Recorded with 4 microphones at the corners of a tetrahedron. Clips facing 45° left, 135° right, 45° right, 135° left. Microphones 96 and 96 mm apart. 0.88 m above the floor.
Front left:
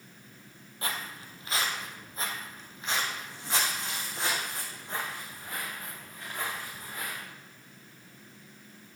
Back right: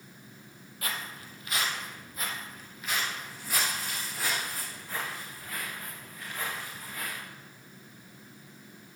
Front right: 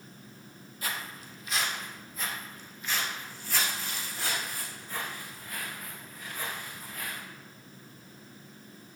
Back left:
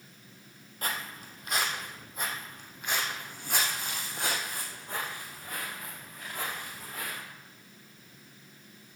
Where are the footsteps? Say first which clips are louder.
Front left 1 dB, back left 2 dB; 100° left, 1.8 m; by 7.2 s 110° left, 5 m.